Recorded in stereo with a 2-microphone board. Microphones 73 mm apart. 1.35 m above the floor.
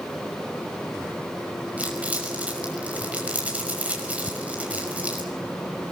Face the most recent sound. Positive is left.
turn(degrees=-25)  # may be behind; listen again after turning